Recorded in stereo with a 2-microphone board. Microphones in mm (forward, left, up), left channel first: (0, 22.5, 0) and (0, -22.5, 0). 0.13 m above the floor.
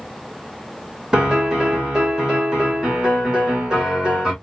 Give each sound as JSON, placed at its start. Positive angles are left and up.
{"t": 1.1, "sound": "a piano", "side_deg": -20, "distance_m": 2.0}